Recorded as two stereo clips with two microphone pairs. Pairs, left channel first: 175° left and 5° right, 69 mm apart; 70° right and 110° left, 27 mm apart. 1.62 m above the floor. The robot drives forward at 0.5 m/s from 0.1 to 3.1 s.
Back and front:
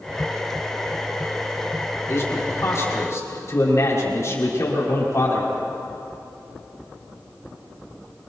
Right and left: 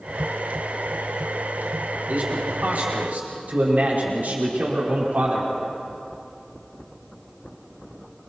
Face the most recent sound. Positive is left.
turn(degrees=130)